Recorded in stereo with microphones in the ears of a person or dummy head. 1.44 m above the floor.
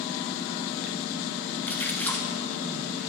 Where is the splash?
15° left (ahead or behind), 1.0 m.